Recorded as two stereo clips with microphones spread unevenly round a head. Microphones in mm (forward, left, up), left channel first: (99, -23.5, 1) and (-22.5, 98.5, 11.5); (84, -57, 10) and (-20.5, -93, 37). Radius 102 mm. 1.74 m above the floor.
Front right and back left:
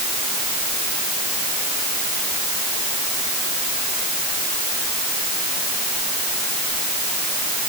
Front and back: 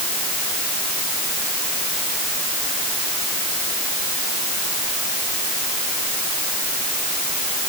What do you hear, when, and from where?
Only background noise.